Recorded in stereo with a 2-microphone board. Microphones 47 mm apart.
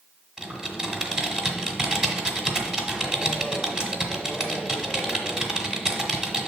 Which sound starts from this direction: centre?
Typing on a keyboard, at 0.4 s.